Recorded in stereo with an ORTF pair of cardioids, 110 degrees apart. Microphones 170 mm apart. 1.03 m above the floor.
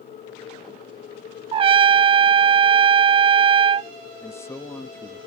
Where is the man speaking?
15° left.